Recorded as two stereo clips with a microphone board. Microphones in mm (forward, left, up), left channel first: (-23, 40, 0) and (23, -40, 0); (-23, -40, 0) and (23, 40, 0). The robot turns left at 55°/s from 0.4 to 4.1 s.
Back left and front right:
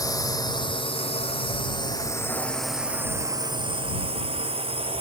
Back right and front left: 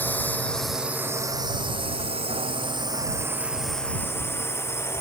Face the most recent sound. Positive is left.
turn(degrees=-55)